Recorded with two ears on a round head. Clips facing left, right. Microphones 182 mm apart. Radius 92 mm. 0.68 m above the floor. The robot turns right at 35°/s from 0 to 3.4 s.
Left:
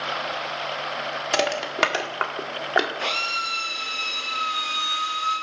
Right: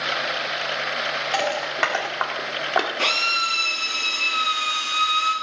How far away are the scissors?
I don't hear scissors.